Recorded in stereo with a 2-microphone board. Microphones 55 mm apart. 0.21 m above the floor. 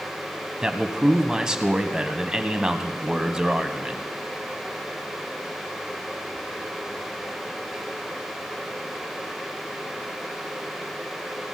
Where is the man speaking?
15° right (ahead or behind), 1.1 m.